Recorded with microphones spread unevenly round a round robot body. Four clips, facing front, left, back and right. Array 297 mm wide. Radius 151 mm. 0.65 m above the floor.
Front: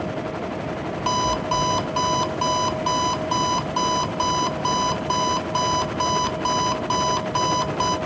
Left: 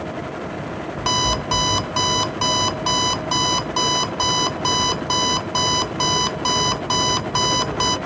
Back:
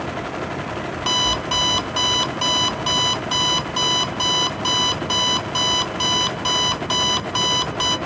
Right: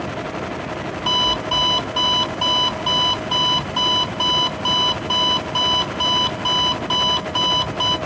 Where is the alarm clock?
85° left, 0.5 m.